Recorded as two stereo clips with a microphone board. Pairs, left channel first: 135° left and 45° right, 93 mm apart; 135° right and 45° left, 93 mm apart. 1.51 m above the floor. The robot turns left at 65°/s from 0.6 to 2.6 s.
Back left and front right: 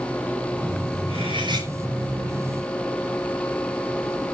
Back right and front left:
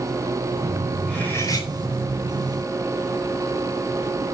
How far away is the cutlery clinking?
About 7.5 m.